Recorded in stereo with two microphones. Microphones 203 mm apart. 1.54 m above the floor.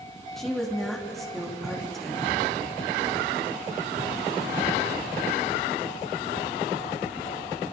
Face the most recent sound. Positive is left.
turn(degrees=0)  # may be behind; listen again after turning